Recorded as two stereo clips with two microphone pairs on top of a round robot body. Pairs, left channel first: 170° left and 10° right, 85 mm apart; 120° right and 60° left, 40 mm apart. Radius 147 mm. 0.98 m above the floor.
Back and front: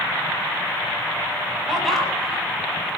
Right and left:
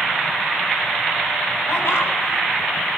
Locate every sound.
1.7 s laughter: 105° right, 8.5 m